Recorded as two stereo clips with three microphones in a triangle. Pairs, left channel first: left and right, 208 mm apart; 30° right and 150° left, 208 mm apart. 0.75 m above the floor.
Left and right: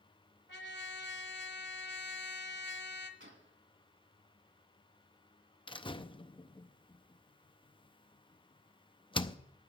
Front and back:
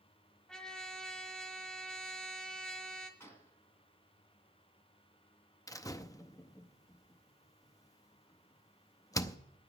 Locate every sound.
0.5 s a trumpet: 55° left, 1.4 m
3.2 s a gunshot: 110° right, 2 m
5.7 s a door slam: 35° left, 0.6 m